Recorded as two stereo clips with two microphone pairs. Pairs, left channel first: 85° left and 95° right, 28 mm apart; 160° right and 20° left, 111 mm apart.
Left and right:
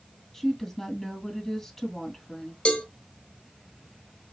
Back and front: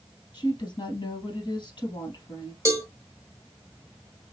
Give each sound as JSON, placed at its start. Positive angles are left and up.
{"t": 0.3, "sound": "a woman speaking", "azimuth_deg": 165, "distance_m": 2.5}
{"t": 2.6, "sound": "a cowbell", "azimuth_deg": 70, "distance_m": 1.0}